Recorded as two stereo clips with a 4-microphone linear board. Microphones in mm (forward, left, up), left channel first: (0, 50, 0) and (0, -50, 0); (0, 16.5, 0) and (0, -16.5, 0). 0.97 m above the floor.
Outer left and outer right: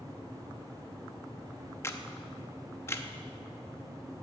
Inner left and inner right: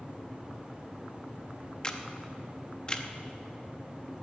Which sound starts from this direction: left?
A camera shutter, at 1.8 s.